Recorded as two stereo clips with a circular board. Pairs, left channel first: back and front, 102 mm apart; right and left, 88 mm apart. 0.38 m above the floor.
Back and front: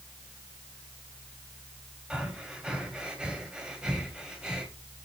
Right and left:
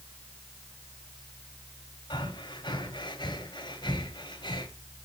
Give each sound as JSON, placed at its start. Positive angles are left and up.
{"t": 2.1, "sound": "breathing", "azimuth_deg": -80, "distance_m": 2.0}